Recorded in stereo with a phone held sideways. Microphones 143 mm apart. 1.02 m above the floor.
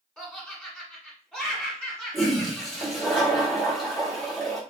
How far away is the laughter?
About 1.5 m.